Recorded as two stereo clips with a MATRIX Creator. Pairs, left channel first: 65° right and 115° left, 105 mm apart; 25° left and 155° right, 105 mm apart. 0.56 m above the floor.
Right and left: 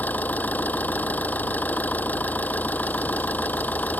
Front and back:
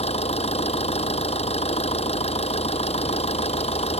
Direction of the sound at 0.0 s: 5° left.